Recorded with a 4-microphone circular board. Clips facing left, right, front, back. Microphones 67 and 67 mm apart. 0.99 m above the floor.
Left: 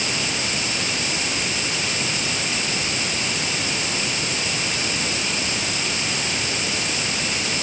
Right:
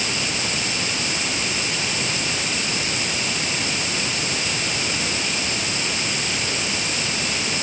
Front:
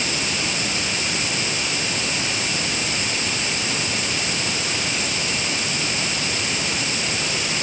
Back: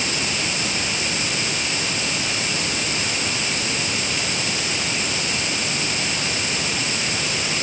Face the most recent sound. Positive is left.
No sound to turn to.